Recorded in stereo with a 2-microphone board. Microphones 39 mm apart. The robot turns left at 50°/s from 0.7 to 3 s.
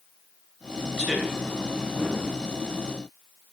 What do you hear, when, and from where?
1.0 s a man speaking: 20° right (ahead or behind), 3 m; by 1.3 s 5° right (ahead or behind), 3 m